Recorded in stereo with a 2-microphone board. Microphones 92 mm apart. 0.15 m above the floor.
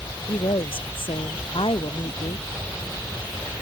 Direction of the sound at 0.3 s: 70° left (ahead or behind).